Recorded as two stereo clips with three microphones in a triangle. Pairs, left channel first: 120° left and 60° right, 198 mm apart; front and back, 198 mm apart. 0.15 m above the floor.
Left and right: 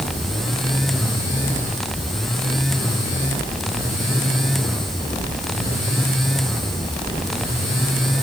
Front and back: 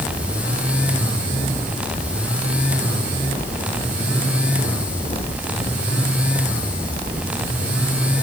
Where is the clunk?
I don't hear a clunk.